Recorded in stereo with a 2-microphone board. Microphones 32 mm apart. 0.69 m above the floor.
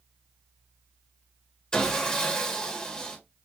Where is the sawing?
25° left (ahead or behind), 1.1 m.